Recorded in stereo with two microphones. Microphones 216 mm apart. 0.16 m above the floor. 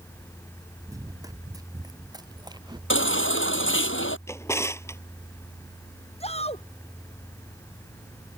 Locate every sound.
0.9 s running footsteps: 15° right (ahead or behind); by 2.8 s 20° right (ahead or behind)
2.9 s a baby crying: 70° left (ahead or behind)
4.3 s a drawer: 15° left (ahead or behind)
6.2 s a shout: 30° left (ahead or behind)